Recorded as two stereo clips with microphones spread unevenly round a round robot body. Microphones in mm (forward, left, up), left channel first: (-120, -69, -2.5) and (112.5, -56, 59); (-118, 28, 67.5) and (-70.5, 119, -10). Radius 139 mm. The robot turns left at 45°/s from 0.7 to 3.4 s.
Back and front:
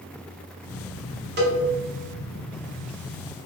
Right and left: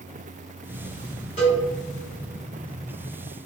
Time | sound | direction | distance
1.4 | a cowbell | 45° right | 1.0 m